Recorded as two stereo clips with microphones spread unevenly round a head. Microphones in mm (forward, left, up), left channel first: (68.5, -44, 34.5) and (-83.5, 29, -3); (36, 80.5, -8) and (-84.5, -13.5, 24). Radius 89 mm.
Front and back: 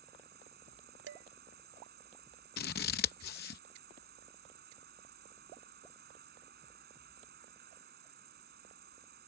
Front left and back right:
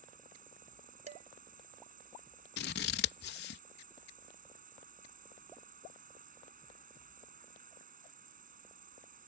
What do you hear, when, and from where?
0.0 s an insect: 170° right
1.1 s dishes clattering: straight behind
2.6 s scissors: 10° left